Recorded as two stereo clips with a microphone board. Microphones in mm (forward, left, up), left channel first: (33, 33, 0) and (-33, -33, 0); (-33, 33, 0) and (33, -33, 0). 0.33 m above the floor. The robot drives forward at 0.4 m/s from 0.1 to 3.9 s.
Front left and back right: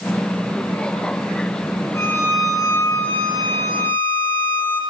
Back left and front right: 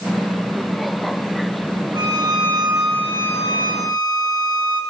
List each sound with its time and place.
1.9 s a violin: 10° right, 2.5 m; by 4.8 s 15° right, 2.0 m